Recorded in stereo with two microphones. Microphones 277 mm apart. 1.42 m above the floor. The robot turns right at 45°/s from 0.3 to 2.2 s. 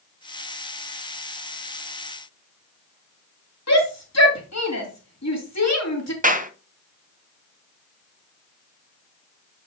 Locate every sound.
3.7 s a shout: 60° left (ahead or behind), 3 m
6.2 s a clap: 30° right (ahead or behind), 0.7 m